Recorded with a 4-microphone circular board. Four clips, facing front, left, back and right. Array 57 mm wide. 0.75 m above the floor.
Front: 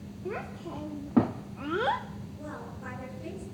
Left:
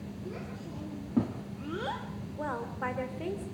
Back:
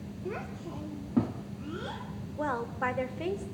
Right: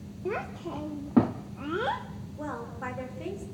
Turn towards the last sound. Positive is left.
turn(degrees=160)